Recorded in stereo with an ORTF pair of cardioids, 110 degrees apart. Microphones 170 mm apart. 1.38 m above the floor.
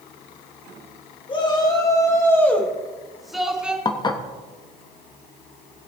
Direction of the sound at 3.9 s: 25° left.